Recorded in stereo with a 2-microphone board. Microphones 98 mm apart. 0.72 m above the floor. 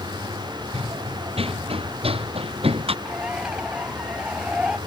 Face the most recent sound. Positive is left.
turn(degrees=-5)  # may be behind; listen again after turning